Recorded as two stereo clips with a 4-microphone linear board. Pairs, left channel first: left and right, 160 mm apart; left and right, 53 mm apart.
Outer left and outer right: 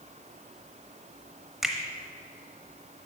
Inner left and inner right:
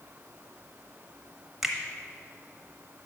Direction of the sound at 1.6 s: Centre (ahead or behind).